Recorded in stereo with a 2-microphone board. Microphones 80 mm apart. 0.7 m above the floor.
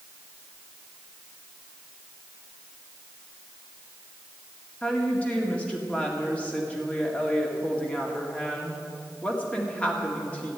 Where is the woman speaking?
15° left (ahead or behind), 1.8 m.